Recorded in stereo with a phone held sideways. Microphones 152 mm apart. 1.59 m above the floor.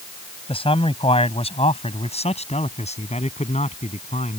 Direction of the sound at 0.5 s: 40° left (ahead or behind).